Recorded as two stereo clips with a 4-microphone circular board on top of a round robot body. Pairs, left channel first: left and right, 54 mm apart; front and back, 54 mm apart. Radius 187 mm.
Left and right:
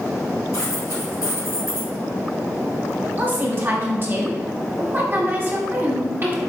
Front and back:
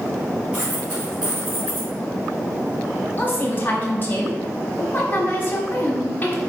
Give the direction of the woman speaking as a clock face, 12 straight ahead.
2 o'clock.